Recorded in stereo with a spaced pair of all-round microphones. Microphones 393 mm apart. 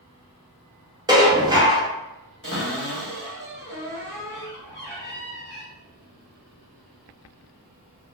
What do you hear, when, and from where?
1.1 s dishes clattering: 10° right (ahead or behind), 0.6 m
2.4 s a cupboard door: 30° left (ahead or behind), 1.3 m